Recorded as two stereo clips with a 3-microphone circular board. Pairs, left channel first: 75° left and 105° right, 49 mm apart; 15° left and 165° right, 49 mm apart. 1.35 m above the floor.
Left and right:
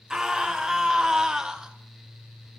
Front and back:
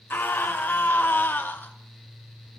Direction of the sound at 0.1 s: 30° right.